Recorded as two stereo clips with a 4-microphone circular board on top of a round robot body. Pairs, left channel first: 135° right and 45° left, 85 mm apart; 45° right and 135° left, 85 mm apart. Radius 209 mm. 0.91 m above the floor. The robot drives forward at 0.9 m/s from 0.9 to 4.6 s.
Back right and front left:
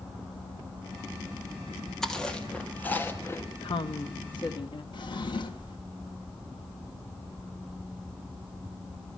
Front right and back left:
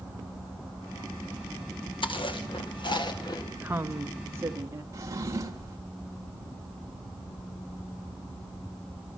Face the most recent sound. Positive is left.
turn(degrees=-170)